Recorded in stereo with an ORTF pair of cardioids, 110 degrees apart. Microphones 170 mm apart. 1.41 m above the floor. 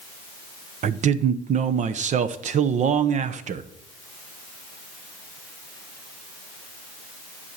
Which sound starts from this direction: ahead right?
A man speaking, at 0.8 s.